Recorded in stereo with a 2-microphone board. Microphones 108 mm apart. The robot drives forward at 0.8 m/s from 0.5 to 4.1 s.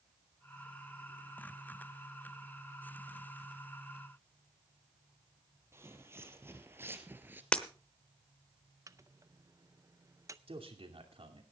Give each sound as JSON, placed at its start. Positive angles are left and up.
{"t": 5.7, "sound": "footsteps", "side_deg": -25, "distance_m": 1.7}
{"t": 7.5, "sound": "breaking glass", "side_deg": 10, "distance_m": 0.9}
{"t": 8.9, "sound": "a microwave", "side_deg": -30, "distance_m": 0.5}
{"t": 10.5, "sound": "a man speaking", "side_deg": -65, "distance_m": 2.5}